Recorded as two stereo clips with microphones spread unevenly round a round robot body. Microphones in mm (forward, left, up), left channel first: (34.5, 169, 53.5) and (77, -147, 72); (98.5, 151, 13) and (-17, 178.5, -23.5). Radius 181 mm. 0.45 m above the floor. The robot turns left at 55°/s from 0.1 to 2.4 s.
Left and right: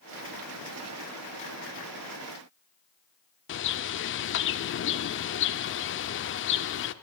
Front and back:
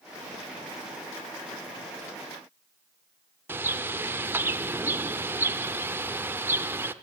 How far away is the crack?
I don't hear a crack.